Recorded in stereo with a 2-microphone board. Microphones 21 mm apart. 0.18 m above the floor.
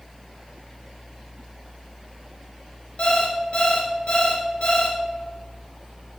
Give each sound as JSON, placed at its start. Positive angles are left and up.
{"t": 3.0, "sound": "an alarm clock", "side_deg": 60, "distance_m": 1.7}